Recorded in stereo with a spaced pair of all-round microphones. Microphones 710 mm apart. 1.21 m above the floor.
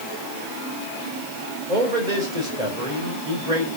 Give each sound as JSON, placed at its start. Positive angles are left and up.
{"t": 1.7, "sound": "a man speaking", "side_deg": -85, "distance_m": 4.5}